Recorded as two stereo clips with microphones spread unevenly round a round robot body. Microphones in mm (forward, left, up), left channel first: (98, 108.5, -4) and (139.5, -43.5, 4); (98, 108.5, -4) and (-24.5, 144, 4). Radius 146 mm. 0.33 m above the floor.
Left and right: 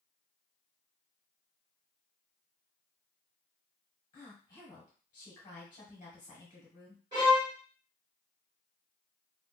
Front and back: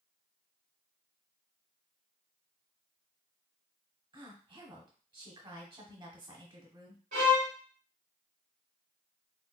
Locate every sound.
4.1 s a woman speaking: 130° left, 1.0 m
7.1 s a violin: 145° right, 2 m